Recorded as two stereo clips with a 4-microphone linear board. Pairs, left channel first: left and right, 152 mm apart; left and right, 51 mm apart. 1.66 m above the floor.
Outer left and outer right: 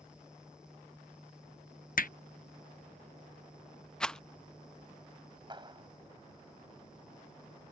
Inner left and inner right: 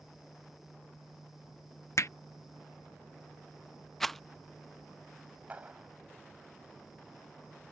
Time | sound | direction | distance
2.0 | hammering | 65° left (ahead or behind) | ?
4.0 | a rattle | 5° left (ahead or behind) | ?
5.5 | a clap | 30° right (ahead or behind) | ?